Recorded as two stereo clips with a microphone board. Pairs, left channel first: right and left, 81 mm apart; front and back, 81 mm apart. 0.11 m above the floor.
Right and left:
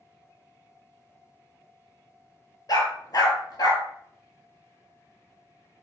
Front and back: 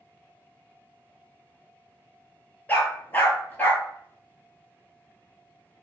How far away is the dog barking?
About 0.6 m.